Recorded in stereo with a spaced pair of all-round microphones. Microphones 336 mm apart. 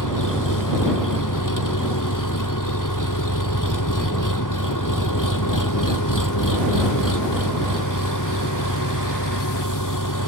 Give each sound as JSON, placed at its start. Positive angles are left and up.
{"t": 0.0, "sound": "an engine running", "side_deg": 65}